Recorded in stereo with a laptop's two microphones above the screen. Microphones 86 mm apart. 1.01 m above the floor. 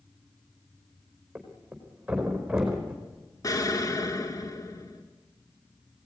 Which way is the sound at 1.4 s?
10° right (ahead or behind).